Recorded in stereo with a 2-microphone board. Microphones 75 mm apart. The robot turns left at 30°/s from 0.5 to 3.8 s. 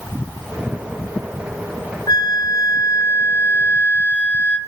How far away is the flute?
About 2.5 m.